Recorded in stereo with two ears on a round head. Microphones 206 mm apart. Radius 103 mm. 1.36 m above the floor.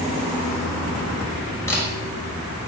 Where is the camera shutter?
10° left (ahead or behind), 7 m.